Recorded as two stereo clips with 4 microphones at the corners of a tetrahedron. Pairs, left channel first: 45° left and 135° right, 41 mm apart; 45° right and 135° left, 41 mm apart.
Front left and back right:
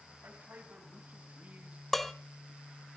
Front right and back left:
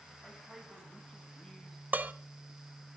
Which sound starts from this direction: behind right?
A man speaking, at 0.2 s.